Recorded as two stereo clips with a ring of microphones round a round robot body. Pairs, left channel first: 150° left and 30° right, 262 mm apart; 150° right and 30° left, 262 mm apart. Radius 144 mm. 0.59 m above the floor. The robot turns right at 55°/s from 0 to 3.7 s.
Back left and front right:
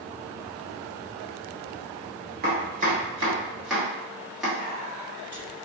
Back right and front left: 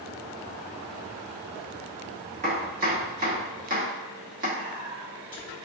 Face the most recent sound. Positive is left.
turn(degrees=-175)